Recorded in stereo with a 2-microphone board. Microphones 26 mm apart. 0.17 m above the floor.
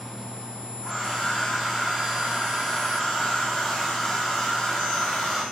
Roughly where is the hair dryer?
Left.